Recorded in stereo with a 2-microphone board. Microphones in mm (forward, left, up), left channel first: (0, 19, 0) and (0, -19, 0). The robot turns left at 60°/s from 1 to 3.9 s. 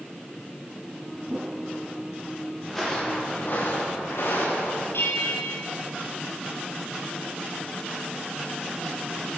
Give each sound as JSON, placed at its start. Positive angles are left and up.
{"t": 1.3, "sound": "a whoosh", "side_deg": -20, "distance_m": 4.0}
{"t": 2.6, "sound": "footsteps", "side_deg": 0, "distance_m": 9.5}
{"t": 4.9, "sound": "a bell", "side_deg": 80, "distance_m": 4.5}